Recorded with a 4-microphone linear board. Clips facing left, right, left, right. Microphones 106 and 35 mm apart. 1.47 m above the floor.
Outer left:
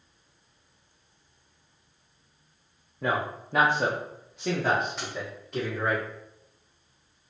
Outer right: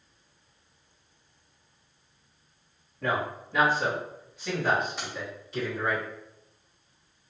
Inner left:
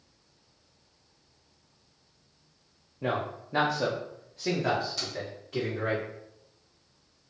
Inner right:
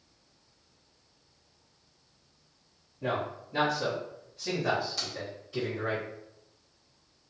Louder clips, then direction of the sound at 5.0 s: Outer left 1 dB, inner left 1 dB; 5° right (ahead or behind).